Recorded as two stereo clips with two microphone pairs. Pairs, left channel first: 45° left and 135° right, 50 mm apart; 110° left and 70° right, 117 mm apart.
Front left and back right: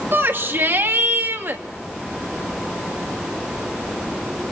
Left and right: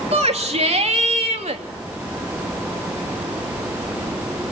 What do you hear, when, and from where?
0.1 s a shout: 95° right, 3 m